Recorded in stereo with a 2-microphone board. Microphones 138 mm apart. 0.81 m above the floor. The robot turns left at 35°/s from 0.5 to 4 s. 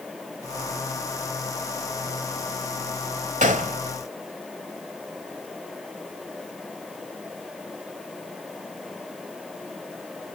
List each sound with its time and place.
3.4 s a gunshot: 60° right (ahead or behind), 1.1 m; by 3.8 s 70° right (ahead or behind), 1.1 m